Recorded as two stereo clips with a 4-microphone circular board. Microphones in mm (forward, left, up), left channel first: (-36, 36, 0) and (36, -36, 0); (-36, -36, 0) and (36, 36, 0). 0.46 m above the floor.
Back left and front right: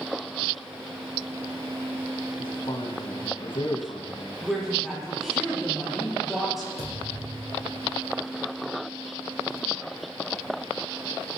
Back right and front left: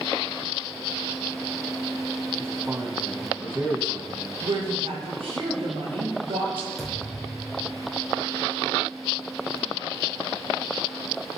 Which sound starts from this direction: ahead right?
A thud, at 6.8 s.